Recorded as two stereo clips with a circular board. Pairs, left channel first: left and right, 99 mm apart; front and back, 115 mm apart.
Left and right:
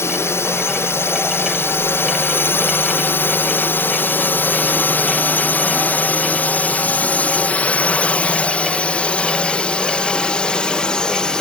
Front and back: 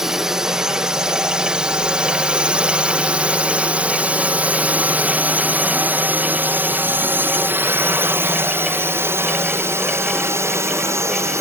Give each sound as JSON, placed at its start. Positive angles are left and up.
{"t": 0.0, "sound": "a drone", "azimuth_deg": 100}